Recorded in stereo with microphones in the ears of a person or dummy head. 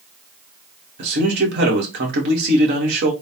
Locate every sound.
1.0 s a man speaking: 70° right (ahead or behind), 2.0 m